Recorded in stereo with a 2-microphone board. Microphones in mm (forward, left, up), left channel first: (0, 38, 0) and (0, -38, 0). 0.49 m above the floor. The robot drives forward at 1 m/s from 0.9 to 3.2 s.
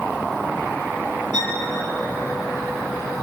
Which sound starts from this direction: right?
A violin, at 1.3 s.